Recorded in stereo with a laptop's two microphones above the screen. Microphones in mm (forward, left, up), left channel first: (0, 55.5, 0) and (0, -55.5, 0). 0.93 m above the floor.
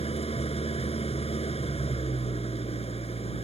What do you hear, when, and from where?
0.0 s an engine running: 65° left (ahead or behind)